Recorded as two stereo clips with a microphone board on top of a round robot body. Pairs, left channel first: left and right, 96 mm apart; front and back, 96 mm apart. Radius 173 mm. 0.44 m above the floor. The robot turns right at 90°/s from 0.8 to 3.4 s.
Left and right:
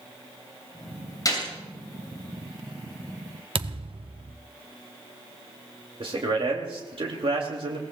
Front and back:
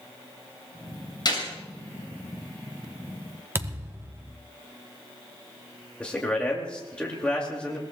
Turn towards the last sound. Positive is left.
turn(degrees=-75)